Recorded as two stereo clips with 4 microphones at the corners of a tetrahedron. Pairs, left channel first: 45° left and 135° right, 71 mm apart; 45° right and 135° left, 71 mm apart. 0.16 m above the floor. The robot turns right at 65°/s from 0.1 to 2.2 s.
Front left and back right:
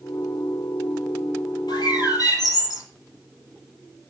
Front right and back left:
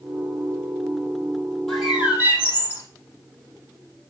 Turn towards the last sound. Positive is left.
turn(degrees=75)